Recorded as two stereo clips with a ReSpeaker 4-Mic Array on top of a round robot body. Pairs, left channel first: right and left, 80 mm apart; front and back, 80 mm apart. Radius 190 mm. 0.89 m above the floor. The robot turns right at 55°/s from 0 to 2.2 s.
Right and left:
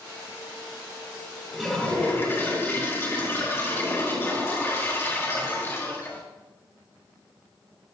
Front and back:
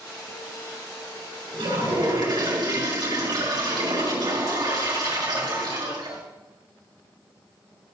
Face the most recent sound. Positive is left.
turn(degrees=-150)